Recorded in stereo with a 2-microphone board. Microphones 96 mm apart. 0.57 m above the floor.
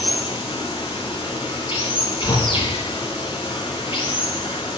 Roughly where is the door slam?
Left.